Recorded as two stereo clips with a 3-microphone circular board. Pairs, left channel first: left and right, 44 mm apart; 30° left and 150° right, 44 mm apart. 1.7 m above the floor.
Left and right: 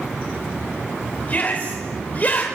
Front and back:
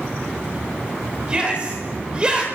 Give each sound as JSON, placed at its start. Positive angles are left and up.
{"t": 1.3, "sound": "a shout", "azimuth_deg": 145, "distance_m": 5.5}